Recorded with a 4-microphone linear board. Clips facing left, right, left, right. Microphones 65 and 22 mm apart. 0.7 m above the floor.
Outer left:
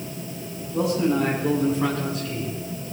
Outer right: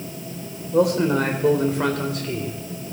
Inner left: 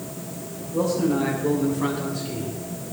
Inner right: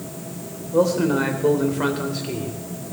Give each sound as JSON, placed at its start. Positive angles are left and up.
{"t": 0.7, "sound": "a man speaking", "side_deg": -70, "distance_m": 3.0}